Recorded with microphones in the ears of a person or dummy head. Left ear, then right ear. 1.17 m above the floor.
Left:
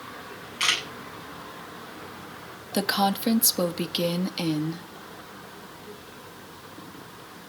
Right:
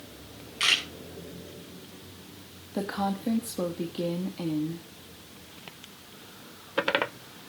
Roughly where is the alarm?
I don't hear an alarm.